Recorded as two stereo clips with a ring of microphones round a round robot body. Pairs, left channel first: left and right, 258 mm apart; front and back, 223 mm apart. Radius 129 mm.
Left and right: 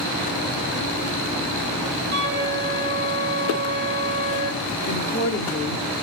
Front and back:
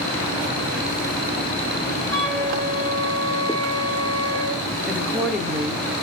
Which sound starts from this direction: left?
A woman speaking, at 4.8 s.